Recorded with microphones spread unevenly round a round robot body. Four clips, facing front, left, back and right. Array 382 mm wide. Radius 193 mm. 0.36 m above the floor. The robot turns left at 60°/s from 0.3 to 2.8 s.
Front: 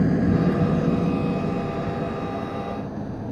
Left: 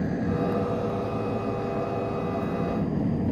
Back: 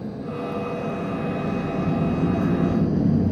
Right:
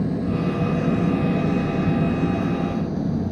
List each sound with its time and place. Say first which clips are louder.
0.0 s an engine running: right 3 dB, front 9 dB; 20° right; by 3.3 s 170° right